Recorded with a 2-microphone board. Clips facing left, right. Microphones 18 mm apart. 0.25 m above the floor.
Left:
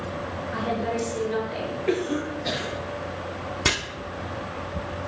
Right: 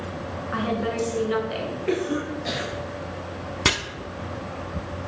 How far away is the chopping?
About 0.8 m.